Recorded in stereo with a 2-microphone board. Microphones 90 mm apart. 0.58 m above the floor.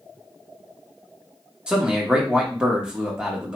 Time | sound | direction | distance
1.7 | a man speaking | 10° right (ahead or behind) | 0.9 m